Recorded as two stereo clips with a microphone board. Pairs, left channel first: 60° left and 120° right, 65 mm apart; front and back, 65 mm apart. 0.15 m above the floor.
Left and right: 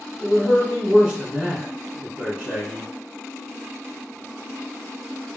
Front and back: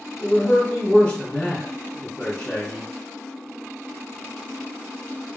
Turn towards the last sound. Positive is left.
turn(degrees=-50)